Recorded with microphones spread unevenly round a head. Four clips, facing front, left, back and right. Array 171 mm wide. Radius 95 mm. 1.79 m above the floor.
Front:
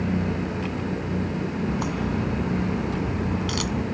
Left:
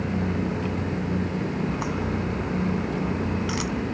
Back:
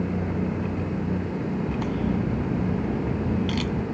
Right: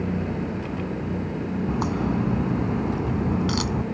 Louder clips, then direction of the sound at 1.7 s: Right 3 dB, even; 105° right.